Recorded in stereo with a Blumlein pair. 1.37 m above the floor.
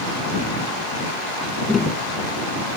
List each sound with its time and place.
1.7 s tapping: 15° left